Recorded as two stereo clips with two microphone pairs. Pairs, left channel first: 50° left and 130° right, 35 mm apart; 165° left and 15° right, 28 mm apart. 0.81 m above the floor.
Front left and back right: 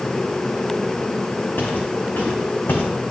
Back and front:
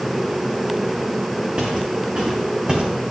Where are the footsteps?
35° left, 5 m; by 2.9 s 40° left, 3 m.